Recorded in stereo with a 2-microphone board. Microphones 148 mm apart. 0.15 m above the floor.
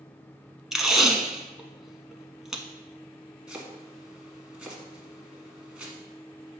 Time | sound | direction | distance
0.7 | tape being pulled | centre (ahead or behind) | 0.7 m
3.5 | chopping | 5° right (ahead or behind) | 1.4 m